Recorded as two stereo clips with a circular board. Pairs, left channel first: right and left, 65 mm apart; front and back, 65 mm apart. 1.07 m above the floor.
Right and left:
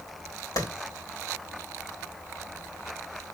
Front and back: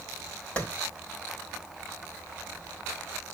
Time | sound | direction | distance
0.6 | a clap | 70° right | 5 m